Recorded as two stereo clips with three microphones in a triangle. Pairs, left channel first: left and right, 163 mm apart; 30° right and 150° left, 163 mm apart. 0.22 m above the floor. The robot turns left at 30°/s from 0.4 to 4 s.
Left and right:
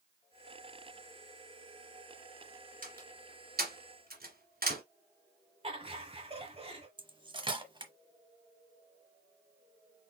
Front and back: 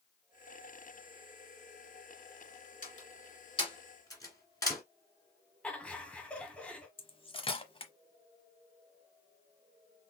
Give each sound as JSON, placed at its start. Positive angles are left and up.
{"t": 2.8, "sound": "a door slam", "azimuth_deg": -65, "distance_m": 2.0}
{"t": 5.6, "sound": "laughter", "azimuth_deg": -110, "distance_m": 1.3}
{"t": 7.0, "sound": "cutlery clinking", "azimuth_deg": -55, "distance_m": 0.9}